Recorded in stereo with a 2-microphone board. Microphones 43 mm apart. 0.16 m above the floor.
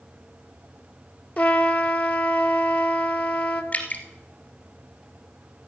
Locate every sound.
1.4 s a trumpet: 50° left (ahead or behind), 0.8 m
3.7 s dripping: 40° left (ahead or behind), 1.7 m